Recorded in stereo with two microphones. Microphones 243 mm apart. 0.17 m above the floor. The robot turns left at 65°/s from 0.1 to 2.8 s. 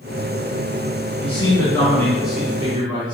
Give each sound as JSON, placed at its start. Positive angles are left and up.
{"t": 1.2, "sound": "a man speaking", "side_deg": 25, "distance_m": 1.8}